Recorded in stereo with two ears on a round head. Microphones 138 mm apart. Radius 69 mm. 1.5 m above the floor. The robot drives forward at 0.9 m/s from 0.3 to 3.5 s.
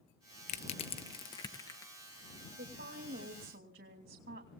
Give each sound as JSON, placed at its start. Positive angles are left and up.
{"t": 0.5, "sound": "crushing", "side_deg": 50, "distance_m": 1.0}
{"t": 2.6, "sound": "a woman speaking", "side_deg": -80, "distance_m": 2.5}